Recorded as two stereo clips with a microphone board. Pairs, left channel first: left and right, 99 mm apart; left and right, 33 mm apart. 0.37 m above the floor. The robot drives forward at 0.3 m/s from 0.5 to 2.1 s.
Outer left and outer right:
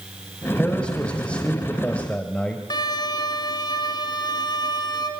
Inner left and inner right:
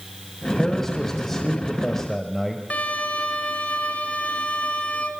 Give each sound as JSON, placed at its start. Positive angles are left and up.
{"t": 0.6, "sound": "a man speaking", "side_deg": 10, "distance_m": 2.5}
{"t": 2.7, "sound": "a violin", "side_deg": 45, "distance_m": 3.0}